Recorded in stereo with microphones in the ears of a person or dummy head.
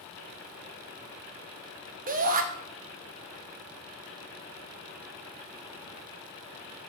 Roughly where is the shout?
Right.